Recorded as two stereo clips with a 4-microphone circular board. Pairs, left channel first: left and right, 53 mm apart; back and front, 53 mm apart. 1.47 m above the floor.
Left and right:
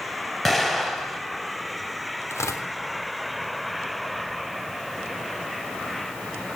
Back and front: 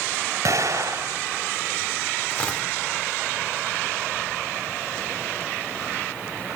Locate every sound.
0.5 s an explosion: 5° left, 5.5 m
2.3 s tearing paper: 115° left, 3 m